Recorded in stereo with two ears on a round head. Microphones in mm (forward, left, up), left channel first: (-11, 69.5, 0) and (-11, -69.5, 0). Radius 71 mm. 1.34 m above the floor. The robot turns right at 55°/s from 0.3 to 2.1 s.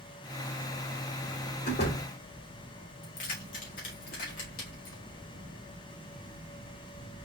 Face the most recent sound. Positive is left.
turn(degrees=55)  # may be behind; listen again after turning